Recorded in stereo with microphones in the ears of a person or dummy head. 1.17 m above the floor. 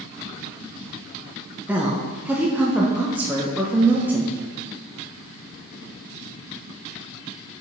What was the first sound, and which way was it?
A woman speaking, 5° right (ahead or behind).